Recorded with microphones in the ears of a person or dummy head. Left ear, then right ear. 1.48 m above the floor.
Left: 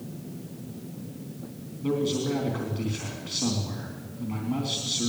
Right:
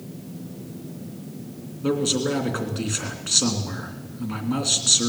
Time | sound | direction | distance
1.8 | a man speaking | 30° right (ahead or behind) | 3 m